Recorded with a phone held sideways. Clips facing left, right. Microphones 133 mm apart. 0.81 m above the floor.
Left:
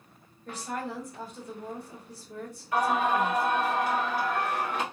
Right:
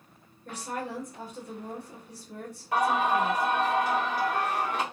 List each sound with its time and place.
0.5 s a woman speaking: 55° right (ahead or behind), 1.8 m
2.7 s singing: 80° right, 1.6 m